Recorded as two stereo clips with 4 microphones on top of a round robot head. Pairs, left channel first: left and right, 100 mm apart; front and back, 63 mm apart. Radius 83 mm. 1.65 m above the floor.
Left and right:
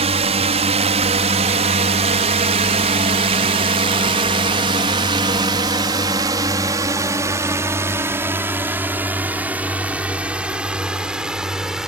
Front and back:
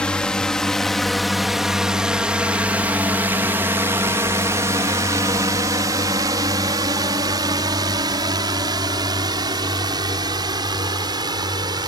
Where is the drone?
80° right; by 11.9 s 175° right.